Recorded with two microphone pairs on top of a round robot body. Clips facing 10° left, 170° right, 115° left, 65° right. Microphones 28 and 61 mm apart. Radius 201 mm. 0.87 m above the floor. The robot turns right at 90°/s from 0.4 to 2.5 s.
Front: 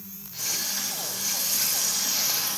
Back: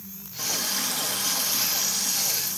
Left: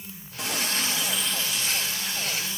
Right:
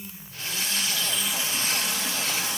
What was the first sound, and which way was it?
A running tap, 135° left.